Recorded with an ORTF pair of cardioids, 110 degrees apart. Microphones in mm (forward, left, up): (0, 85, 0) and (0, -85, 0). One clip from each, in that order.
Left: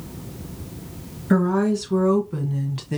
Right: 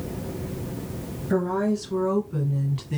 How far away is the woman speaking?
About 2.5 m.